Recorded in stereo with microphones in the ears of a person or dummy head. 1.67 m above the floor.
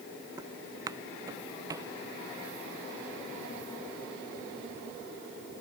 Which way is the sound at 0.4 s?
20° right (ahead or behind).